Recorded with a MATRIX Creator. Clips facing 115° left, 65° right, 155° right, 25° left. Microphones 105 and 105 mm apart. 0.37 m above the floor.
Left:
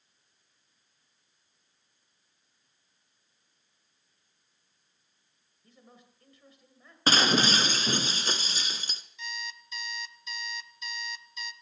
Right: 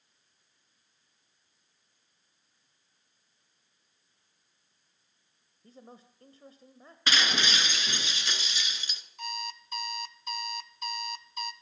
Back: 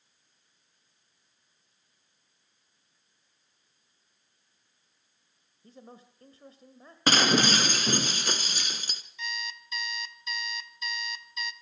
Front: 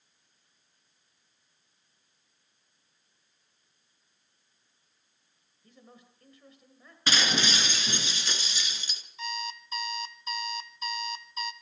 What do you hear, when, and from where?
5.6 s a man speaking: 110° right, 1.6 m
7.1 s breaking glass: 165° left, 1.3 m
9.2 s an alarm clock: 30° right, 0.8 m